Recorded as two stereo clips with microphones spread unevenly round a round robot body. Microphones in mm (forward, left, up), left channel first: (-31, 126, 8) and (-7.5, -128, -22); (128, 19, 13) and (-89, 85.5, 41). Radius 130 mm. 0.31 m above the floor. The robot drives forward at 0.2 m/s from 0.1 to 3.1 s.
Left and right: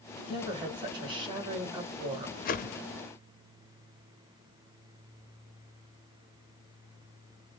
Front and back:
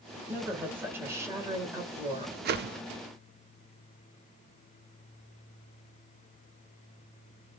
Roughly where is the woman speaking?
Right.